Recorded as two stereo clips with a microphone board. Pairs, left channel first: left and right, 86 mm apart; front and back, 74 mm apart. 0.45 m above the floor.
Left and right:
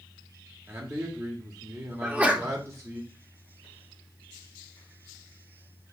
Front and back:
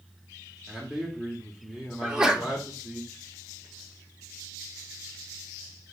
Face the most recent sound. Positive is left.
turn(degrees=-120)